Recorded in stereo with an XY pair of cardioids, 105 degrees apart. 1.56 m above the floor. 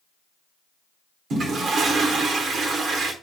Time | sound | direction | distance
1.3 | a toilet flushing | 60° right | 1.1 m